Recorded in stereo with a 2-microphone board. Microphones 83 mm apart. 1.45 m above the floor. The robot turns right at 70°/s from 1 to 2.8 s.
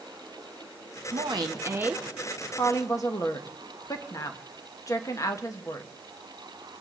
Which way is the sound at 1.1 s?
75° right.